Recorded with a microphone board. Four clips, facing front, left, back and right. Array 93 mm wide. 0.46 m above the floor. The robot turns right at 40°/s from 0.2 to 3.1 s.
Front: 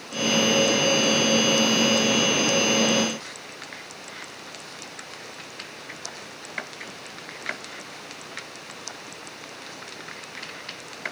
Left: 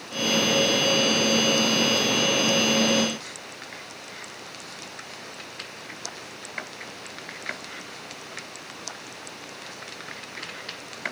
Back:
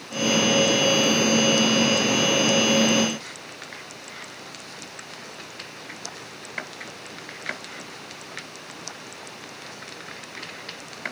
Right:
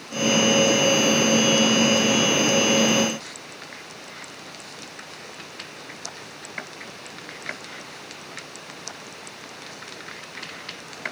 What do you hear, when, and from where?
Only background noise.